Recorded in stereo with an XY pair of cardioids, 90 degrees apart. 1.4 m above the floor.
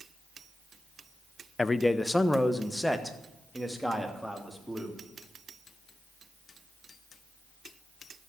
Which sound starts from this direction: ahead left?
A man speaking, at 1.6 s.